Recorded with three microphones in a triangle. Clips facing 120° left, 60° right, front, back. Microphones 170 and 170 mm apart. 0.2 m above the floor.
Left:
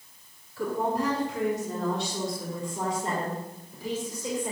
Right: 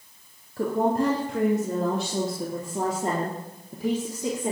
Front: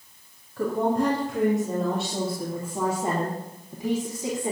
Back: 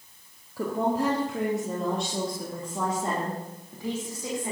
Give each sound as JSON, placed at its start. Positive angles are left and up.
{"t": 0.6, "sound": "a woman speaking", "azimuth_deg": -100, "distance_m": 3.5}